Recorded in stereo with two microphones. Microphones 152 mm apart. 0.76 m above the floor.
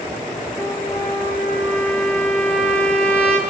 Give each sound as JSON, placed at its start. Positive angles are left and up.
{"t": 0.6, "sound": "a trumpet", "side_deg": 10, "distance_m": 6.5}